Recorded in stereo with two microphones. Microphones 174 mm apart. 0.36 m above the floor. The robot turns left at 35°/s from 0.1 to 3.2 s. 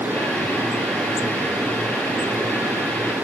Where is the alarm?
No alarm in this recording.